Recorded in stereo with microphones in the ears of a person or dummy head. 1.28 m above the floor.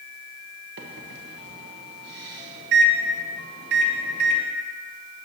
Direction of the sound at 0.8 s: 60° right (ahead or behind).